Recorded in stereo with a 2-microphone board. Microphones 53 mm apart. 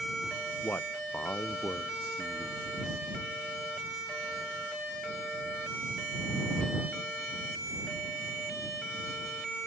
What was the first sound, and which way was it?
A man speaking, 45° left (ahead or behind).